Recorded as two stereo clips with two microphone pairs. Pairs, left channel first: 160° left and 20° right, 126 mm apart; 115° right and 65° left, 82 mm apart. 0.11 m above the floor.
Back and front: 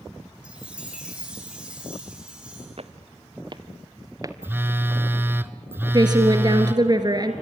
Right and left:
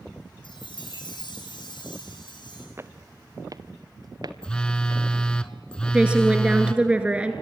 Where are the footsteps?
10° left, 1.3 m; by 5.2 s 45° left, 2.5 m.